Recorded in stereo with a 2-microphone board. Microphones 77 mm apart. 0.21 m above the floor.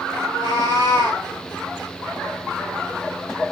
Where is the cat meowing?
70° left (ahead or behind), 2.0 m; by 1.2 s 75° left (ahead or behind), 1.4 m.